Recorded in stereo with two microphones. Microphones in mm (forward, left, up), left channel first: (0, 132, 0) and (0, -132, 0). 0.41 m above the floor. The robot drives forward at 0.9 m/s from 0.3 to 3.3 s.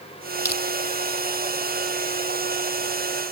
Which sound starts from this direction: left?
Crushing, at 0.5 s.